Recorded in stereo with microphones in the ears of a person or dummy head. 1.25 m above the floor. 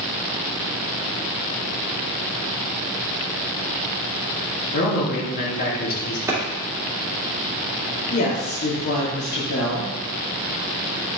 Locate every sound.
4.7 s a man speaking: 55° left (ahead or behind), 2.5 m
6.3 s a clap: 10° right (ahead or behind), 2.5 m
8.1 s a woman speaking: 50° left (ahead or behind), 3 m